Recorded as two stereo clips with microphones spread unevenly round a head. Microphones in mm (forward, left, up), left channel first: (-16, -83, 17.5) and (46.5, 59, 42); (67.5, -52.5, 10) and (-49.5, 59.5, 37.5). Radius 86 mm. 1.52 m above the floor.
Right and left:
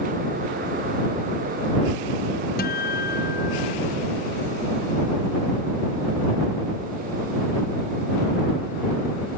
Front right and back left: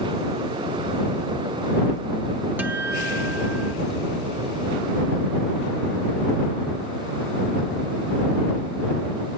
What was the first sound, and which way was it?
A guitar, 145° right.